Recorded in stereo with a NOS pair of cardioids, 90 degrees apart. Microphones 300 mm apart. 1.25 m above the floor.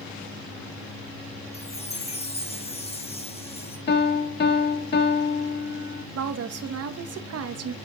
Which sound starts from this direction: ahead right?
A woman speaking, at 6.2 s.